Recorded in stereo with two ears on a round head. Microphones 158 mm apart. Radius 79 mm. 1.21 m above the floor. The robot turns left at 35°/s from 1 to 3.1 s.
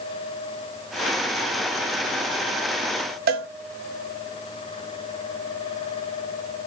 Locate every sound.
3.3 s a cowbell: 60° right (ahead or behind), 0.5 m